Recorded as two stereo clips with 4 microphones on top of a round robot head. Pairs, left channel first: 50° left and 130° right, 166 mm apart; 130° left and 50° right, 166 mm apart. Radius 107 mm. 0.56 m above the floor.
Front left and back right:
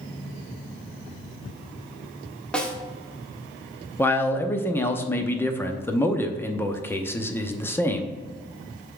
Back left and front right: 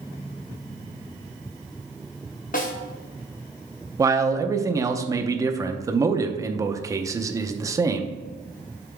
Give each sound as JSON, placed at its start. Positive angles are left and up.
{"t": 2.5, "sound": "a snare drum", "azimuth_deg": 130, "distance_m": 1.6}
{"t": 4.0, "sound": "a man speaking", "azimuth_deg": -10, "distance_m": 0.8}